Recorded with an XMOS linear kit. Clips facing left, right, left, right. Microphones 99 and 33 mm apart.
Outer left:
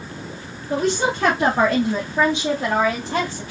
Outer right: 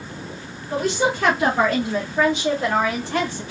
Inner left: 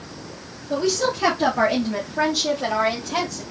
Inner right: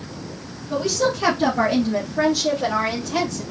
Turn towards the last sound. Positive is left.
turn(degrees=20)  # may be behind; listen again after turning